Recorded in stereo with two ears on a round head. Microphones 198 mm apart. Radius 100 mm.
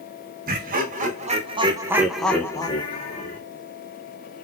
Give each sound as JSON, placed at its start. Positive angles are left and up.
{"t": 0.5, "sound": "laughter", "side_deg": -45, "distance_m": 1.1}